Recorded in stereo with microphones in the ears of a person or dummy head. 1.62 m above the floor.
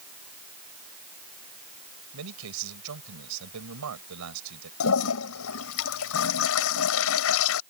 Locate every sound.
2.1 s a man speaking: 85° right
4.8 s a toilet flushing: 70° left (ahead or behind)